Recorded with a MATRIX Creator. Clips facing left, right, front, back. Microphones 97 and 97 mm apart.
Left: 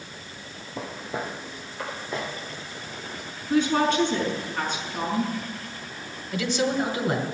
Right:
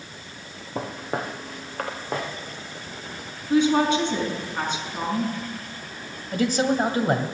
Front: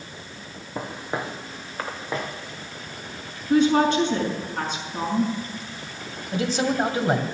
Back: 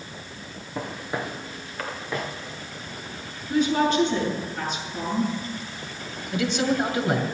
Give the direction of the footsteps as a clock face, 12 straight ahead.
2 o'clock.